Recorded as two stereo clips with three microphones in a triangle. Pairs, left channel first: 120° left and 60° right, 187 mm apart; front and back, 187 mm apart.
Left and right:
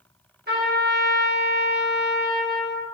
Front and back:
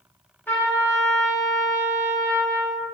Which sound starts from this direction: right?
A trumpet, at 0.5 s.